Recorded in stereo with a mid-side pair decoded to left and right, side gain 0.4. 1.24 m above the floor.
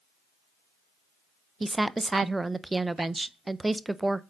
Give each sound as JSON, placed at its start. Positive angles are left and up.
{"t": 1.6, "sound": "a woman speaking", "azimuth_deg": -20, "distance_m": 0.5}